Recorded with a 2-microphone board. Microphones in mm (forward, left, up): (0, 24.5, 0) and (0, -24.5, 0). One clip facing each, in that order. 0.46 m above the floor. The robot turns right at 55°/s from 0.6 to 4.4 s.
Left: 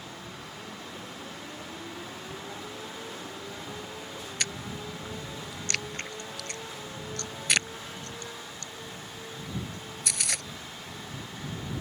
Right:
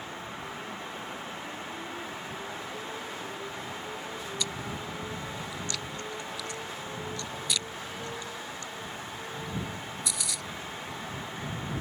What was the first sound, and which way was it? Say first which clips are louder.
Chewing: left 2 dB; 55° left (ahead or behind).